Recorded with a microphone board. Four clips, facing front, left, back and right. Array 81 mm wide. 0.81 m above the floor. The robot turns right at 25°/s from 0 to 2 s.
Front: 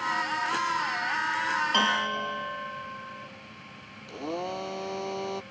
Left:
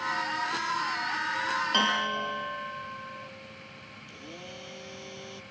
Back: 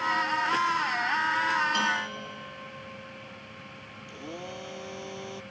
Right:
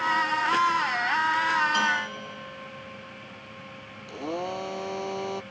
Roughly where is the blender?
Ahead right.